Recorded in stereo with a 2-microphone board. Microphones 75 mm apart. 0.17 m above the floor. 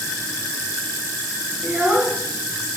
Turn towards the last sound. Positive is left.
turn(degrees=-20)  # may be behind; listen again after turning